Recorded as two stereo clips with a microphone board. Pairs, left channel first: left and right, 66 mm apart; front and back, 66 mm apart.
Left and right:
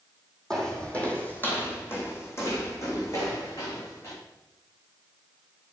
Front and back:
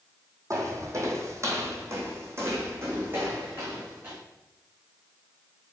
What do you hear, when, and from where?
0.5 s footsteps: 165° left, 2.5 m; by 4.2 s 120° left, 4.5 m